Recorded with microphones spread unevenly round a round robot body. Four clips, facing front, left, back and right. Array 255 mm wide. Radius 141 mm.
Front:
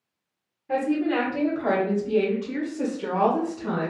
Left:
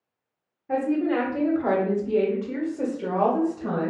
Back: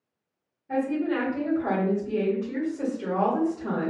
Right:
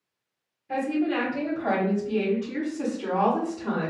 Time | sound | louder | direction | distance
0.7 | a woman speaking | left 2 dB, front 2 dB | 40° left | 1.8 m